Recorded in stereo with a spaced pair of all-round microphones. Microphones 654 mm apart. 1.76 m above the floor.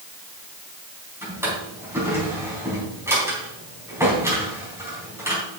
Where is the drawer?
5° right (ahead or behind), 4 m.